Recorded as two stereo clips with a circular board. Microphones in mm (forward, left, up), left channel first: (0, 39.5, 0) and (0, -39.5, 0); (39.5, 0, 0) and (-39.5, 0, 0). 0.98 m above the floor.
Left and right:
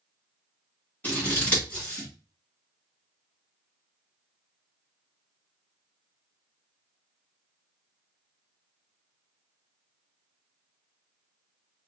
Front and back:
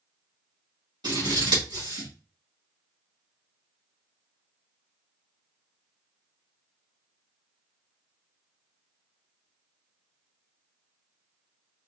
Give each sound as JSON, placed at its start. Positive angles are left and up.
{"t": 1.0, "sound": "scissors", "azimuth_deg": 160, "distance_m": 2.5}